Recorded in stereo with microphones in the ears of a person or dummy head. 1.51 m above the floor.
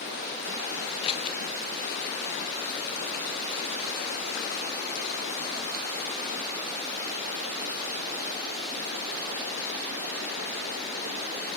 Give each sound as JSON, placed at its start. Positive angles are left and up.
{"t": 1.0, "sound": "scissors", "side_deg": 25, "distance_m": 0.7}